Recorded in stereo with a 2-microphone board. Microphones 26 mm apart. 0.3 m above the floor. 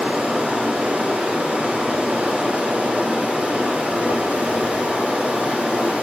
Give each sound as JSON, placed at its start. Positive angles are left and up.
{"t": 0.0, "sound": "running water", "side_deg": -85, "distance_m": 4.5}